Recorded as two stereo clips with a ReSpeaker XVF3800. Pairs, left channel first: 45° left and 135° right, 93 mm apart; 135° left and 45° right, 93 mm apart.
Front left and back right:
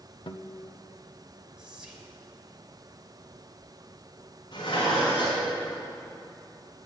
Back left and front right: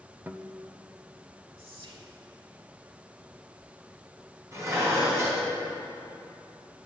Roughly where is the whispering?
Ahead right.